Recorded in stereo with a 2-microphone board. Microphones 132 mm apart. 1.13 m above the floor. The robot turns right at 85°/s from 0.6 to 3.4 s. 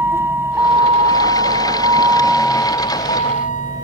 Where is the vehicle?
20° right (ahead or behind); by 3.8 s 80° left.